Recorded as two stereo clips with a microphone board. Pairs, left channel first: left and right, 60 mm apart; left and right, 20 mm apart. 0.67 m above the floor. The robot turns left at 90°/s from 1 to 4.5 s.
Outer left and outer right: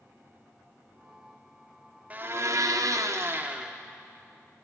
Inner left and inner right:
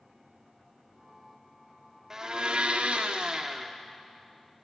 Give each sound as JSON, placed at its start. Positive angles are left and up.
{"t": 2.1, "sound": "a blender", "azimuth_deg": -25, "distance_m": 0.6}